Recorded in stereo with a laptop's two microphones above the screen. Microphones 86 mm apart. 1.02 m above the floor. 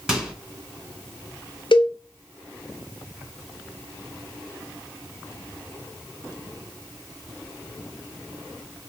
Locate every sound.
0.1 s a microwave: 10° right (ahead or behind), 1.8 m
1.7 s a cowbell: 65° left (ahead or behind), 0.7 m